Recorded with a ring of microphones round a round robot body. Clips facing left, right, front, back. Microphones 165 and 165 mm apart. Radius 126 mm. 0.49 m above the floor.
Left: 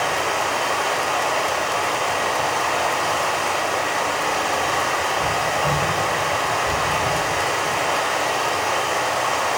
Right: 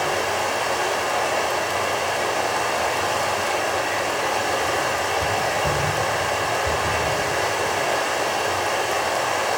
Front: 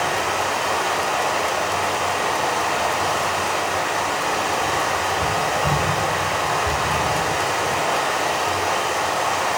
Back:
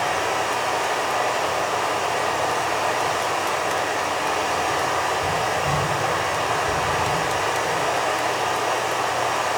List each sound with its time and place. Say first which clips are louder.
0.0 s running water: even, front 1 dB; 35° right, 1.0 m